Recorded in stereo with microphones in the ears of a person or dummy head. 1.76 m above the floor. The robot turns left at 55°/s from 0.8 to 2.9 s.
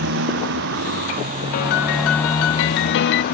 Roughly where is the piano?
Behind left.